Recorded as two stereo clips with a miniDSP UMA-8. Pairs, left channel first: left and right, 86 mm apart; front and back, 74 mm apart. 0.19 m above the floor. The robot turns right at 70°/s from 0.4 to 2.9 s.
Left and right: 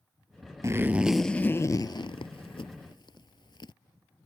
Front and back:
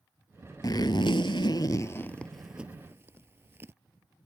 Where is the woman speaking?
I don't hear a woman speaking.